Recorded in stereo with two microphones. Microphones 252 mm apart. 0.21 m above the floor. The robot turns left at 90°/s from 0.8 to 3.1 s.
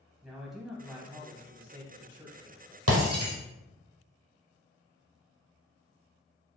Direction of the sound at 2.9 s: 70° right (ahead or behind).